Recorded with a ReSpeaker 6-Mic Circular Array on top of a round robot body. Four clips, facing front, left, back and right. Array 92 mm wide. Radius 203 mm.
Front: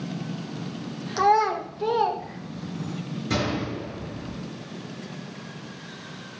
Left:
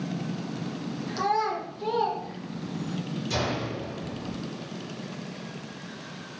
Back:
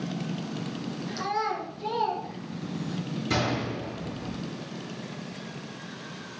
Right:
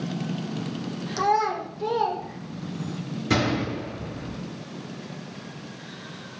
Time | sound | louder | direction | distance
1.2 | a child speaking | right 4 dB, front 10 dB | 15° right | 1.6 m
3.3 | a gunshot | right 7 dB, front 2 dB | 90° right | 5 m